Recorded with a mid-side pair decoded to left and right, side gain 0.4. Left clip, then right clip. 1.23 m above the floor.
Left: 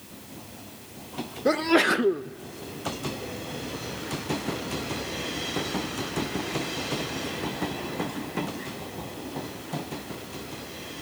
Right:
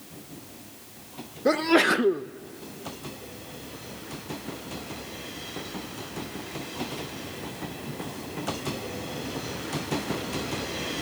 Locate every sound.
1.4 s a sneeze: straight ahead, 0.7 m